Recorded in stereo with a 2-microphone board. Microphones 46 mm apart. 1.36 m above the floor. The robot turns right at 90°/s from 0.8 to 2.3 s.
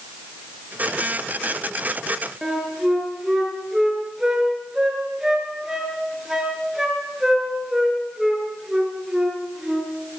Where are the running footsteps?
I don't hear running footsteps.